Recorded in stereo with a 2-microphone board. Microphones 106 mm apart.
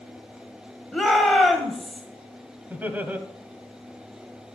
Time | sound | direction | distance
0.9 | a shout | centre (ahead or behind) | 1.2 m
2.7 | laughter | 15° right (ahead or behind) | 1.4 m